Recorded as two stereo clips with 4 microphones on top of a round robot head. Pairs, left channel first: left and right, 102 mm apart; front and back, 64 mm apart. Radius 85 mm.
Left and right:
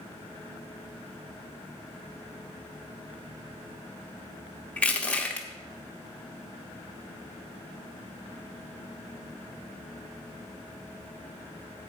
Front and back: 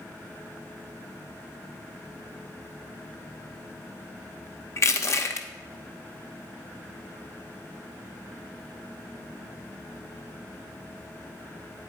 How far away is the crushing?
About 1.0 m.